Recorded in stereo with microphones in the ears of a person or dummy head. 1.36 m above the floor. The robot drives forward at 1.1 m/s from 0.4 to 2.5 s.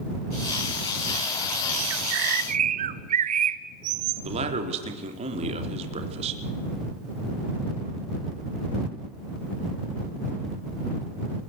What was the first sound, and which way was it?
A bird, 70° right (ahead or behind).